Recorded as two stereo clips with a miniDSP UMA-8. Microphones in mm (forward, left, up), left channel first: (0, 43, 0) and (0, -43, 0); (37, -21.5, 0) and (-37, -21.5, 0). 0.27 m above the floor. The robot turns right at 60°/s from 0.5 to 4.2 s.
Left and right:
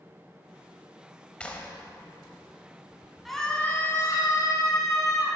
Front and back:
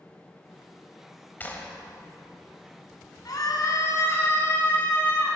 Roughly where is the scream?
Ahead.